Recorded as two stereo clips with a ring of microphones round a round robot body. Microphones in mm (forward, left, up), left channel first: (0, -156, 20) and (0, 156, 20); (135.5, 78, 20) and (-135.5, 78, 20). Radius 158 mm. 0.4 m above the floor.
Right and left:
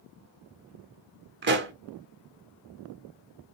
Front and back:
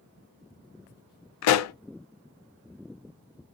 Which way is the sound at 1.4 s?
30° left.